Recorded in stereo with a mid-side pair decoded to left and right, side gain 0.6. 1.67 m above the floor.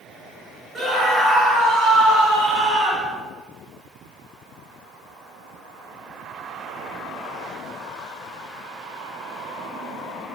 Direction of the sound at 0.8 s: 30° right.